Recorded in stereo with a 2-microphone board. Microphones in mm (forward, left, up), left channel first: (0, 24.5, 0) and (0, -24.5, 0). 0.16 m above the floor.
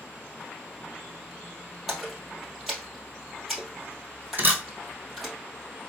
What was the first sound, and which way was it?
A splash, centre (ahead or behind).